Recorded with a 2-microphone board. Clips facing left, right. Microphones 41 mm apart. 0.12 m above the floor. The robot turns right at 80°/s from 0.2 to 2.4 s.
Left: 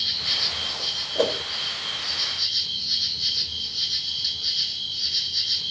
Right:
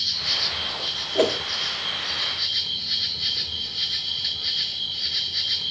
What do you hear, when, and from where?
0.0 s an insect: 165° left, 1.1 m; by 5.7 s 20° right, 1.1 m
1.1 s a whoosh: 55° right (ahead or behind), 1.5 m